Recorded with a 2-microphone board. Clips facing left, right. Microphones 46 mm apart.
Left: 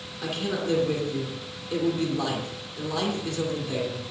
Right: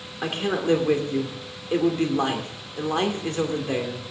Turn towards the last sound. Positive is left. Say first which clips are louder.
# right 4 dB
turn(degrees=-40)  # may be behind; listen again after turning